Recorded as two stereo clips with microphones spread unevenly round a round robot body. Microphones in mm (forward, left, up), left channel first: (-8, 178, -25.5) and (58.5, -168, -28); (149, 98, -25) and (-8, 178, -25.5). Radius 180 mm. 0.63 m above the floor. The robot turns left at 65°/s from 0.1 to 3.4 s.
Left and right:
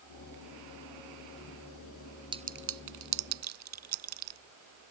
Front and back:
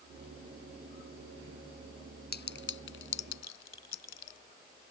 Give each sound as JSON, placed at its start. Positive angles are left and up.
{"t": 2.3, "sound": "a clink", "azimuth_deg": 0}